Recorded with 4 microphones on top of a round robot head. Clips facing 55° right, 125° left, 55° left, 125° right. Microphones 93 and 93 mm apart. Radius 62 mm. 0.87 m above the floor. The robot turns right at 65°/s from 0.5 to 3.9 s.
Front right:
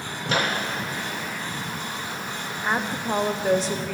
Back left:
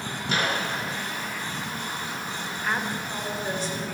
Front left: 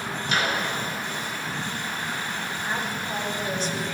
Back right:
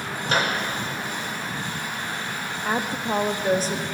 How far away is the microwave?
About 3 m.